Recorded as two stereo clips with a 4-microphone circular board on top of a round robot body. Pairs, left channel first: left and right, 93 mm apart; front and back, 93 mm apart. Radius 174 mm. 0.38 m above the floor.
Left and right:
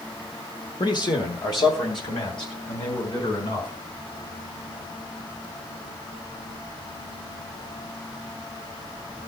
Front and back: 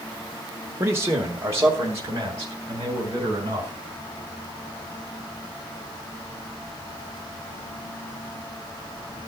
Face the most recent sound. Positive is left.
turn(degrees=125)